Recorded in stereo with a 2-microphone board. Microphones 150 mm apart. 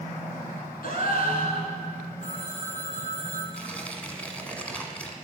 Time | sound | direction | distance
0.8 | a gasp | 80° left | 1.4 m
2.2 | a phone ringing | 55° left (ahead or behind) | 2.5 m
3.5 | tearing paper | 10° left (ahead or behind) | 1.2 m